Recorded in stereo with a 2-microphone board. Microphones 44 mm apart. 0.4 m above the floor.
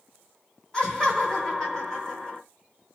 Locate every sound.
0.7 s laughter: 20° left (ahead or behind), 0.9 m